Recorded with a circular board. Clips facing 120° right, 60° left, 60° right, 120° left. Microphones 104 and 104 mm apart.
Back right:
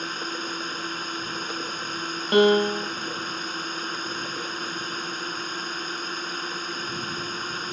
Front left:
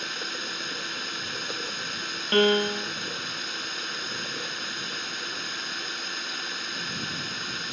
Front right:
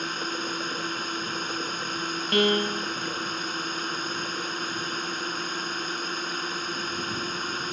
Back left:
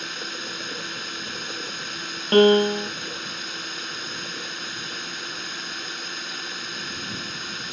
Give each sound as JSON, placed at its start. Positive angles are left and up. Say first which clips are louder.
{"t": 0.0, "sound": "a drone", "louder": "back right 4 dB, front right 4 dB", "azimuth_deg": -90}
{"t": 2.3, "sound": "a piano", "louder": "back right 4 dB, back left 9 dB", "azimuth_deg": 165}